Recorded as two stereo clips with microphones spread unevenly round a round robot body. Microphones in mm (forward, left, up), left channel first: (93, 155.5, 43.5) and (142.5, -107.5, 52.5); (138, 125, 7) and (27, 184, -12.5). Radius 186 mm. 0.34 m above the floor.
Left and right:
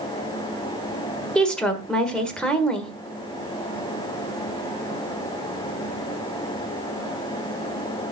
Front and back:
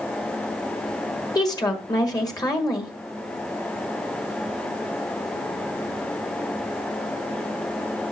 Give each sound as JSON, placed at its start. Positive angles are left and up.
{"t": 1.4, "sound": "a woman speaking", "azimuth_deg": 20, "distance_m": 1.5}